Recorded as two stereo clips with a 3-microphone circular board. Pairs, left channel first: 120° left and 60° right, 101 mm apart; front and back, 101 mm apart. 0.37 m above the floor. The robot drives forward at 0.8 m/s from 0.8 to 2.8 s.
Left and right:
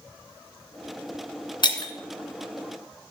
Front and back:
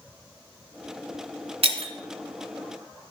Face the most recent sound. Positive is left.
turn(degrees=170)